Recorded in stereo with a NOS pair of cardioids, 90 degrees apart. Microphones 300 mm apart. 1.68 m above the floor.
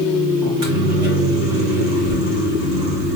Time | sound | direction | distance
0.4 | a microwave | 65° right | 2 m